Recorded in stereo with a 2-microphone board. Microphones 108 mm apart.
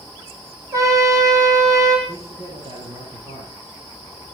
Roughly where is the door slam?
No door slam in this recording.